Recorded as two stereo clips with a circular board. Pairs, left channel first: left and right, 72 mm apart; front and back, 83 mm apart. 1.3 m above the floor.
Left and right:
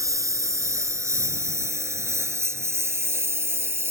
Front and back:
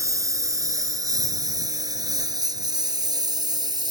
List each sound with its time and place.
0.0 s a lawn mower: 130° right; by 3.9 s 145° right